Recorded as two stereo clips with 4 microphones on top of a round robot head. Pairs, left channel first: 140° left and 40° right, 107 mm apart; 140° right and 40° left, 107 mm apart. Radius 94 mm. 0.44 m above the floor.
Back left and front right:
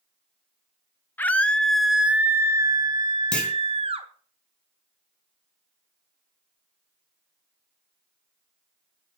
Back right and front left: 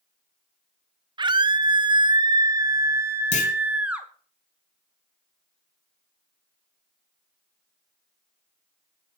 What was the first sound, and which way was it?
A scream, 70° left.